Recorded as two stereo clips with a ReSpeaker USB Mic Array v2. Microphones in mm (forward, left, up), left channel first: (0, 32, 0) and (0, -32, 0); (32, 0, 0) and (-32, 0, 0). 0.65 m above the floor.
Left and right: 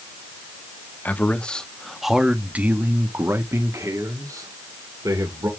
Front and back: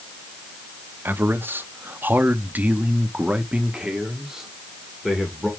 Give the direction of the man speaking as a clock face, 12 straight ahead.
7 o'clock.